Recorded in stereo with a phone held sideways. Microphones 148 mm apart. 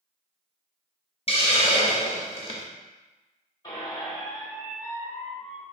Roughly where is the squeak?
Left.